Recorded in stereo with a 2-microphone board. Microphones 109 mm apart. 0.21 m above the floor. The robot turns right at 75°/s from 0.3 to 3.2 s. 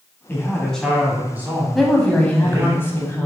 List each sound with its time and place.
0.3 s a man speaking: 20° left (ahead or behind), 1.5 m; by 2.8 s 15° right (ahead or behind), 1.5 m
1.8 s a woman speaking: centre (ahead or behind), 1.0 m; by 3.3 s 20° left (ahead or behind), 1.0 m